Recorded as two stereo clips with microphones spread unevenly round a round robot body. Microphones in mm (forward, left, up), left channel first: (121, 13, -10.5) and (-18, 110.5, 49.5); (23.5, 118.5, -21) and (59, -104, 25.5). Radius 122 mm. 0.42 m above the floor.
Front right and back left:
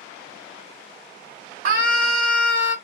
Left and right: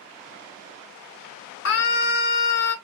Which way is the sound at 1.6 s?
140° left.